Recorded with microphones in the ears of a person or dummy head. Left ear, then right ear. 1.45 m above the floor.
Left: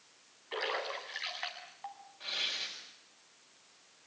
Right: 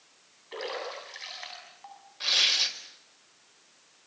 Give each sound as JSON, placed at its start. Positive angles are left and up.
{"t": 0.5, "sound": "a splash", "side_deg": 35, "distance_m": 7.0}
{"t": 2.2, "sound": "tearing paper", "side_deg": -55, "distance_m": 4.0}